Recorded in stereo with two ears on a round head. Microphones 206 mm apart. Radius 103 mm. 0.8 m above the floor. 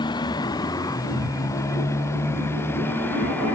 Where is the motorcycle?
20° left (ahead or behind); by 3.6 s 10° left (ahead or behind).